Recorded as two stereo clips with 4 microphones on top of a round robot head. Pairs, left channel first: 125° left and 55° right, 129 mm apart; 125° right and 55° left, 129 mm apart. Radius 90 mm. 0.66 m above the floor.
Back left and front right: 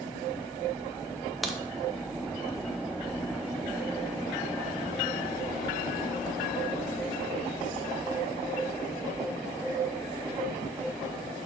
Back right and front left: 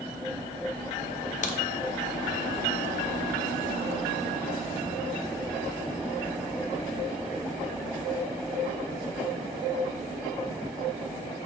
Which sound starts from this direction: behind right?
A crack, at 1.4 s.